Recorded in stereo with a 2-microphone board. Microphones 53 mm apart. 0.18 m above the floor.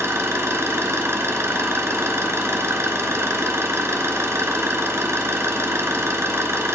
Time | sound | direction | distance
0.0 | an engine running | 55° right (ahead or behind) | 1.0 m